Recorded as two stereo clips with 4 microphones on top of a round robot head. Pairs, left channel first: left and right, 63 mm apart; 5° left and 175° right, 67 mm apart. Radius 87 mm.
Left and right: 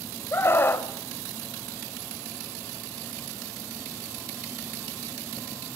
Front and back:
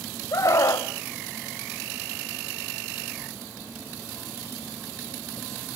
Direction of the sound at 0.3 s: 40° left.